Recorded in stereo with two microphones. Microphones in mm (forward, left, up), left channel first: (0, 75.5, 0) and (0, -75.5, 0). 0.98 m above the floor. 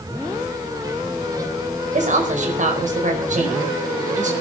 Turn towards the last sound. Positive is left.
turn(degrees=-55)  # may be behind; listen again after turning